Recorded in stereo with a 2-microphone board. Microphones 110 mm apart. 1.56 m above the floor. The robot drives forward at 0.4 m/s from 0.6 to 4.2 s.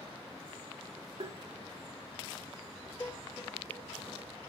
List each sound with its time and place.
1.2 s tapping: 60° right (ahead or behind), 1.8 m
3.0 s dishes clattering: 20° left (ahead or behind), 2 m; by 4.3 s 15° left (ahead or behind), 2.5 m